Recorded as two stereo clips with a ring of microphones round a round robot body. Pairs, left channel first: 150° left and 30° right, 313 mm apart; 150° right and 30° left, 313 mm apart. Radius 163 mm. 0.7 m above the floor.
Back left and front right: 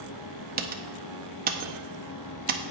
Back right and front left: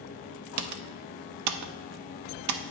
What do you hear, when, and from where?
0.6 s typing on a keyboard: 25° left, 0.6 m